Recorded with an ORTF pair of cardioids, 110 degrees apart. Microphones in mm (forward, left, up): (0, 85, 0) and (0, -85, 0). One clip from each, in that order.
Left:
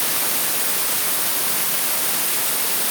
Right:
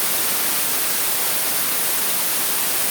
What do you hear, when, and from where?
Only background noise.